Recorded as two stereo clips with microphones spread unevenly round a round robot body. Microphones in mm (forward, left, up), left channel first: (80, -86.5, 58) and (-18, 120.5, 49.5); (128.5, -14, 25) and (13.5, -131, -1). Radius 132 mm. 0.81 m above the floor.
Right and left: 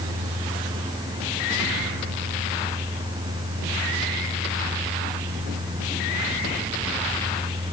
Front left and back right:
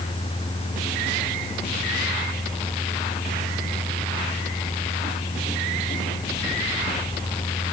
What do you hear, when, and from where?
Only background noise.